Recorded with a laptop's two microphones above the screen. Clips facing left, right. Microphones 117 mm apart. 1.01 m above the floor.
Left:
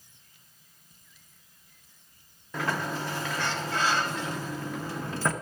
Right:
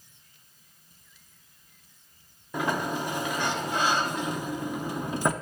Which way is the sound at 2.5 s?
15° right (ahead or behind).